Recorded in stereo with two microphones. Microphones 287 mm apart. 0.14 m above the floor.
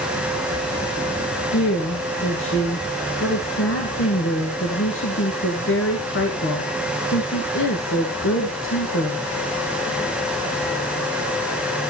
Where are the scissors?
I don't hear scissors.